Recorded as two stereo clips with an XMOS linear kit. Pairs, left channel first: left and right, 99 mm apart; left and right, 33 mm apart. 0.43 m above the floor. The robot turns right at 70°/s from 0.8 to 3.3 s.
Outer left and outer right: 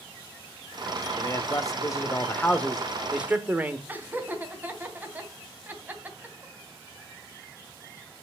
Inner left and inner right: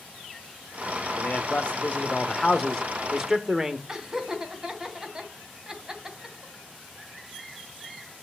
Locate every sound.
1.2 s a man speaking: 60° left, 1.4 m; by 3.8 s 155° right, 1.4 m
3.9 s laughter: 20° right (ahead or behind), 2.5 m